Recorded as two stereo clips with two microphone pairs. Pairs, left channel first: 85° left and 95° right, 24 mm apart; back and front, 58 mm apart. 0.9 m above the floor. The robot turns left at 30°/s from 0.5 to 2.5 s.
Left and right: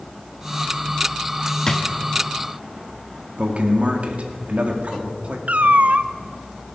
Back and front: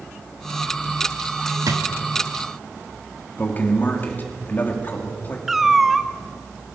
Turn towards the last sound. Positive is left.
turn(degrees=-85)